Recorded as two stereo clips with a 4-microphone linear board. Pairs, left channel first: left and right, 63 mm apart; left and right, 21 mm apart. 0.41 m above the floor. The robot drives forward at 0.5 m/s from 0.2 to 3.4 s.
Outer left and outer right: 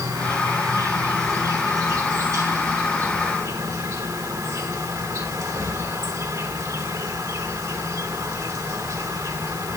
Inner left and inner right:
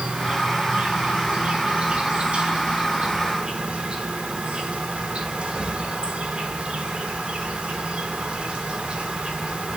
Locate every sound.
0.0 s an insect: 70° right (ahead or behind), 4.5 m; by 9.8 s 60° right (ahead or behind), 4.5 m